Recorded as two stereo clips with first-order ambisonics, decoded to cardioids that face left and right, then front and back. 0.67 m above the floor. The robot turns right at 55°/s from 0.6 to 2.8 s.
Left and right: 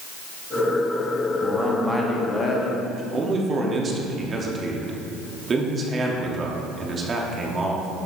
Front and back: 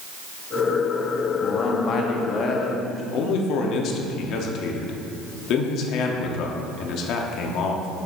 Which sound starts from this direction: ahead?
A man speaking, at 1.4 s.